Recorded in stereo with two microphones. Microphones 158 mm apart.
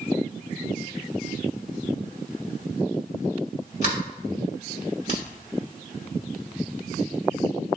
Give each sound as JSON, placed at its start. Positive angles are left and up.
{"t": 3.8, "sound": "a sliding door", "side_deg": 50, "distance_m": 2.5}